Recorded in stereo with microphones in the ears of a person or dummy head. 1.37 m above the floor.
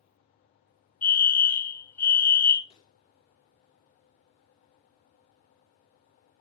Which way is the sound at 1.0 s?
15° left (ahead or behind).